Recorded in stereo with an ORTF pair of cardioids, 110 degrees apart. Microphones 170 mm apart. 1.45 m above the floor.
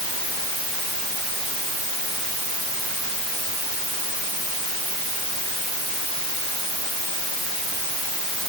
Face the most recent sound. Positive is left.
No sound to turn to.